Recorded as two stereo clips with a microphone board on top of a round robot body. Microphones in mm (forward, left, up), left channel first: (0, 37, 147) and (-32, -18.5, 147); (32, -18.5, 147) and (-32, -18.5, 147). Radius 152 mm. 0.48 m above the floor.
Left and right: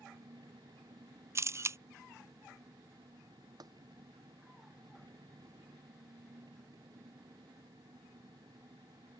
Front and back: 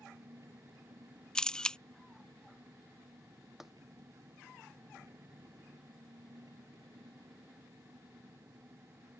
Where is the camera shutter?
80° right.